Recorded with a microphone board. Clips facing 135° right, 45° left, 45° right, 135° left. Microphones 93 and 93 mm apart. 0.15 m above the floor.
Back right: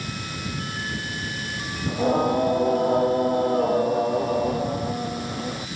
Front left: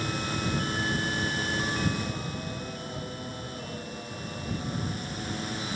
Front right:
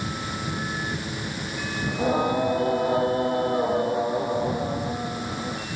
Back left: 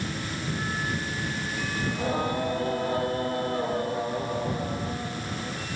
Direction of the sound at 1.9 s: 115° right.